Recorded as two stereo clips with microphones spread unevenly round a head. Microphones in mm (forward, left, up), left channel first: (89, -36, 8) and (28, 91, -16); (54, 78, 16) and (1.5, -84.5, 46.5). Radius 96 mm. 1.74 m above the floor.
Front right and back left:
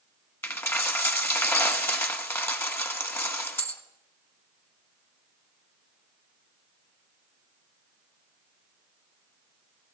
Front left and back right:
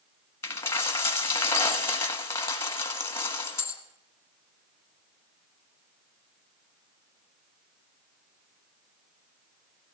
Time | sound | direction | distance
0.4 | a dropped coin | 10° right | 1.4 m